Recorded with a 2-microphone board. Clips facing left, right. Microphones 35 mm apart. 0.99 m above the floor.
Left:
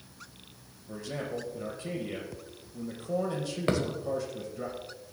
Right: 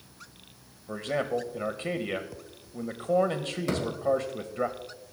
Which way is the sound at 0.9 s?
45° right (ahead or behind).